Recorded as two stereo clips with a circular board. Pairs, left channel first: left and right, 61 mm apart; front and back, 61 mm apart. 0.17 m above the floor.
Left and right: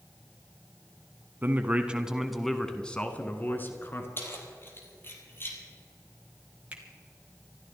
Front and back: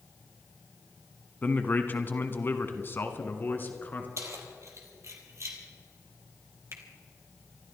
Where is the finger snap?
155° right, 2.5 m.